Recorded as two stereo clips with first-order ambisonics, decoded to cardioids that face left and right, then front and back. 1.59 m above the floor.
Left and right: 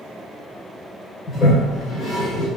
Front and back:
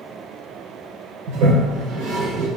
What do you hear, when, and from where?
1.3 s a toilet flushing: 160° left, 2.5 m